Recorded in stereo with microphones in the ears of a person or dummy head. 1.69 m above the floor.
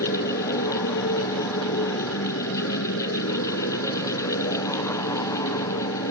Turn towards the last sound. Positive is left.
turn(degrees=85)